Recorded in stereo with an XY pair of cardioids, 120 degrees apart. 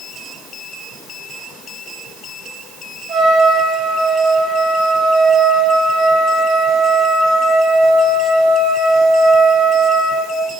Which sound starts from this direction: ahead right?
A trumpet, at 3.1 s.